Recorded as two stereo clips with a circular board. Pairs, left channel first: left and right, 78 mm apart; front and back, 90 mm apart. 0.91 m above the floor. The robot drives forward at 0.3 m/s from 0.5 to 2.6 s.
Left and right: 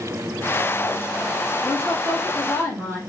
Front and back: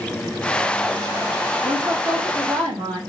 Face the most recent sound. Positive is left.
turn(degrees=175)